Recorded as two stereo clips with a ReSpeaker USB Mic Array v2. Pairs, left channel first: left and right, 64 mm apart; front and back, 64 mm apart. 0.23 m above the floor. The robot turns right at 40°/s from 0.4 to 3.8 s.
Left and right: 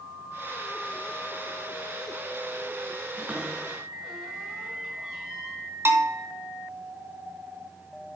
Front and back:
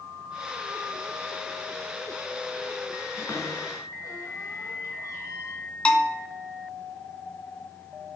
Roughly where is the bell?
Ahead right.